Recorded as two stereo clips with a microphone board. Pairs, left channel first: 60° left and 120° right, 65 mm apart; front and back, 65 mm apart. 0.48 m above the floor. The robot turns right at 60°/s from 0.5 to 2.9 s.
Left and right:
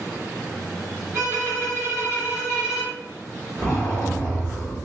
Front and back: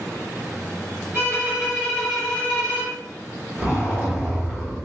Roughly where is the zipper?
Behind right.